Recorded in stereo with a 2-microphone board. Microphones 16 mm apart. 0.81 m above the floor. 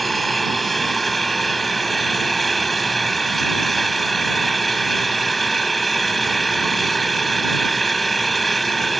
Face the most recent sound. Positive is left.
turn(degrees=5)  # may be behind; listen again after turning